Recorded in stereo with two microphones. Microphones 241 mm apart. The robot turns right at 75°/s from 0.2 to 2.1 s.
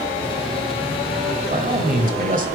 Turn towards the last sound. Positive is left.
turn(degrees=-75)